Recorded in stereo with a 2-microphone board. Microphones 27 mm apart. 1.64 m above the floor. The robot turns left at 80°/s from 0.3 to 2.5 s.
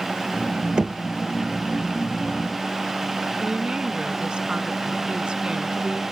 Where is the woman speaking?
35° right (ahead or behind).